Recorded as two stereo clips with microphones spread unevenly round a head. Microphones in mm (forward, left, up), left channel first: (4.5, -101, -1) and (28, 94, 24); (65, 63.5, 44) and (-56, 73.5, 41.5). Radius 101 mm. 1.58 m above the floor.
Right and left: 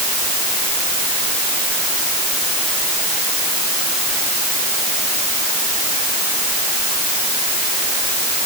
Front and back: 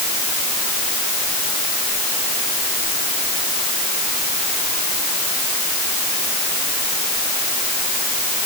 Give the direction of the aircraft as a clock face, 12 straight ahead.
I don't hear an aircraft.